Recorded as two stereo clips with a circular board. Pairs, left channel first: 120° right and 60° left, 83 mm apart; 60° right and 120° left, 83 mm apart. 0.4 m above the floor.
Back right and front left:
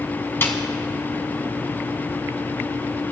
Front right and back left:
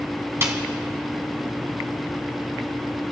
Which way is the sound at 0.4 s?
175° left.